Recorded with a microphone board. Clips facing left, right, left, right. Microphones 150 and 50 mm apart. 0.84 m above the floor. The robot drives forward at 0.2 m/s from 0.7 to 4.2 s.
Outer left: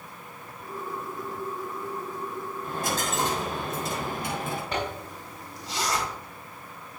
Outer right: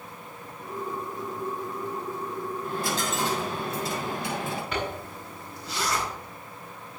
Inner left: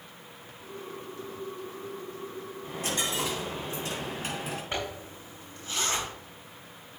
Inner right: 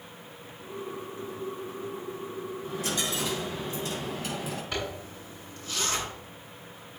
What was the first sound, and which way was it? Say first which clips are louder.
A dropped coin: outer left 1 dB, inner left 1 dB; 45° left (ahead or behind).